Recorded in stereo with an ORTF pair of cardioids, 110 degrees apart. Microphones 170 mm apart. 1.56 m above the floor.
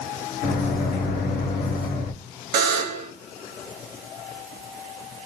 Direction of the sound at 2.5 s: 70° right.